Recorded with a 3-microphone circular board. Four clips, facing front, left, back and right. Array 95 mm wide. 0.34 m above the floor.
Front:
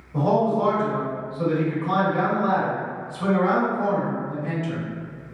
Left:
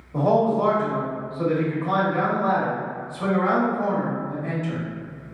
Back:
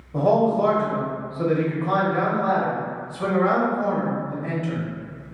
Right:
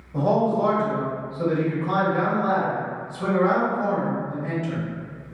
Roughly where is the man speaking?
Behind left.